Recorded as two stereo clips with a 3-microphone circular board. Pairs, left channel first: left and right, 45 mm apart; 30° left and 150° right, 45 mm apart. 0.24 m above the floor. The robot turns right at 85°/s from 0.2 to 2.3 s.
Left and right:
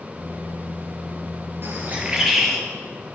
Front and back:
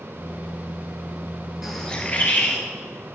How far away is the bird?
About 3 m.